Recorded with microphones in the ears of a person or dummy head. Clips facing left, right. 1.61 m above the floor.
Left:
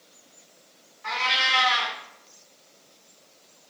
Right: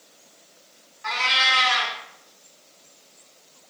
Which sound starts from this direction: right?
A cat meowing, at 1.0 s.